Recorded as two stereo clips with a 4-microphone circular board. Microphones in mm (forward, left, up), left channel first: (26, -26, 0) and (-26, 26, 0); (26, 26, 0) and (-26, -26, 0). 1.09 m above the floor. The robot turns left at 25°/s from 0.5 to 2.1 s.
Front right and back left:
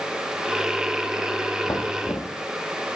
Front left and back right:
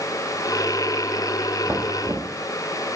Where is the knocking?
85° right, 1.6 m; by 2.3 s 95° right, 1.6 m.